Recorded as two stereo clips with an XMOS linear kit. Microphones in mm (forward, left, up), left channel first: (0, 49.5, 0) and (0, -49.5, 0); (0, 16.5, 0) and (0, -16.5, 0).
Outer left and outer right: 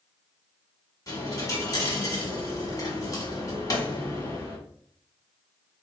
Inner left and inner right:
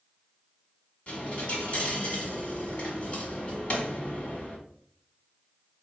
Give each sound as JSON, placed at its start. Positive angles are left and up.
{"t": 1.1, "sound": "a dropped coin", "side_deg": 35, "distance_m": 1.6}